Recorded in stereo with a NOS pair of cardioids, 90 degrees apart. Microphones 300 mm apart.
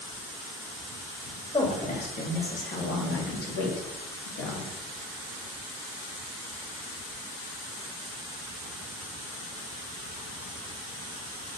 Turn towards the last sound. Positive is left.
turn(degrees=70)